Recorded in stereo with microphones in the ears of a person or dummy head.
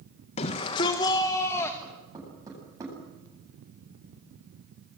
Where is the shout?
40° left (ahead or behind), 1.4 m; by 1.7 s 20° left (ahead or behind), 1.8 m.